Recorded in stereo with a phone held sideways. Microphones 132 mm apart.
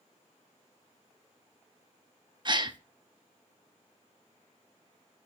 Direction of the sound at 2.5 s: 35° right (ahead or behind).